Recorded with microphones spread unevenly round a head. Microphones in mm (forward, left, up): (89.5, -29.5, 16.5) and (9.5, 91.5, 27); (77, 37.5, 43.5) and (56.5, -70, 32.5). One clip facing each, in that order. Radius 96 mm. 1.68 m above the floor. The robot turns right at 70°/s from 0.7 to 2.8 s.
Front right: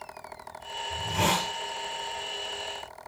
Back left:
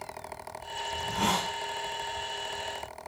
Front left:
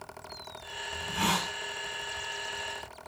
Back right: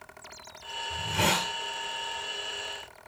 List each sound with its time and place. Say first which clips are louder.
0.9 s a hiss: front right 2 dB, back right 2 dB; 115° right, 5.5 m; by 1.5 s 75° right, 5.5 m